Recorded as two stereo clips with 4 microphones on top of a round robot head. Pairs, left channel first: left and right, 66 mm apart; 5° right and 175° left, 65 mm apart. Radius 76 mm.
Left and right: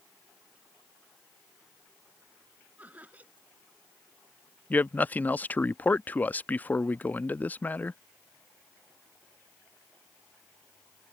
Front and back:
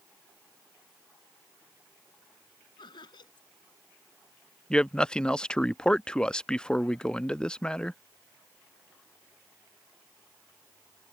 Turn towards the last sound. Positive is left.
turn(degrees=60)